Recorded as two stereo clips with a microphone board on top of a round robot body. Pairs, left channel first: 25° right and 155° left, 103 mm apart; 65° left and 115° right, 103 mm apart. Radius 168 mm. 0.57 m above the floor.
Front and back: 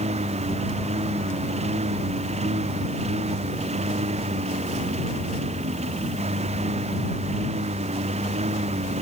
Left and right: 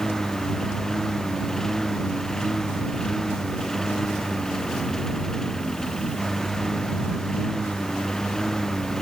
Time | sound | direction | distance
0.0 | a lawn mower | 155° left | ?